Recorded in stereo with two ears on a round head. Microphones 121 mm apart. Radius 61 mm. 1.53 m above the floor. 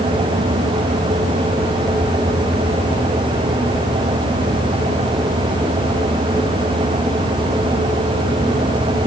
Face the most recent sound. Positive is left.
No sound to turn to.